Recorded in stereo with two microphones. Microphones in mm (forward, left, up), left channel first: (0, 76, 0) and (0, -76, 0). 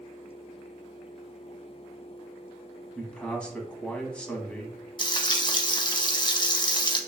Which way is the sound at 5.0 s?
30° left (ahead or behind).